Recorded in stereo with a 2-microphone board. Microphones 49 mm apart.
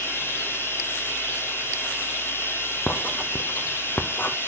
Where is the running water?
55° left (ahead or behind), 2 m.